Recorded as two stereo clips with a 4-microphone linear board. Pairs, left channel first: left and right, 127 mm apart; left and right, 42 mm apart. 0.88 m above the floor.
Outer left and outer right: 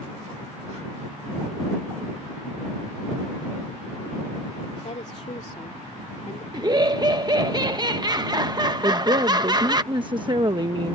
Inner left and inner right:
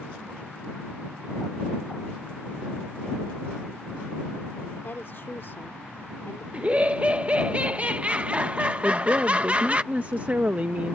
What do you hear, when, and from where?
4.8 s a woman speaking: 60° left (ahead or behind)
6.5 s laughter: 30° right (ahead or behind)
8.8 s a woman speaking: 35° right (ahead or behind)